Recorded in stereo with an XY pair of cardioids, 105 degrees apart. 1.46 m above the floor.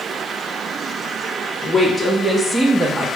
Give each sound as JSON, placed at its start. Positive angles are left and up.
{"t": 1.6, "sound": "a woman speaking", "azimuth_deg": 25, "distance_m": 1.2}